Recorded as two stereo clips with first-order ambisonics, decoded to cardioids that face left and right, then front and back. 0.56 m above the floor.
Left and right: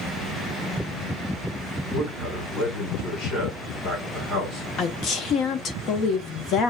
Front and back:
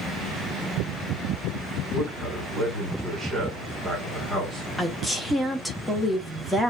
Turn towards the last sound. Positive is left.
turn(degrees=90)